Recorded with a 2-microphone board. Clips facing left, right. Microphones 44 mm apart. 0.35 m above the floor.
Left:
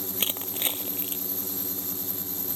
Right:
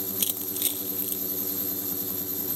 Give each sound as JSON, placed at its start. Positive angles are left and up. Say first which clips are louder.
{"t": 0.2, "sound": "crushing", "louder": "left 3 dB", "side_deg": 35}